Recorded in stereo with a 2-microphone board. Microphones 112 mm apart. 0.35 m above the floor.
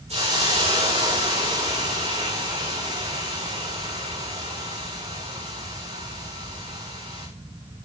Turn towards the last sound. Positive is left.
turn(degrees=-75)  # may be behind; listen again after turning